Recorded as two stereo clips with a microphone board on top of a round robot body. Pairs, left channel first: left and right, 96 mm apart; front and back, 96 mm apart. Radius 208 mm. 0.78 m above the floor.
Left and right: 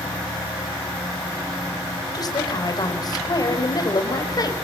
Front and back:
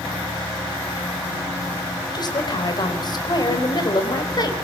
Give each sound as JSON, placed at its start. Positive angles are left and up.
{"t": 2.1, "sound": "a woman speaking", "azimuth_deg": 45, "distance_m": 4.0}